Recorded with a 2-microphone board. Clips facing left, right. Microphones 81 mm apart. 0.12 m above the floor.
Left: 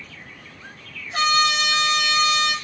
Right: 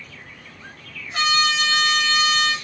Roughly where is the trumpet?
Left.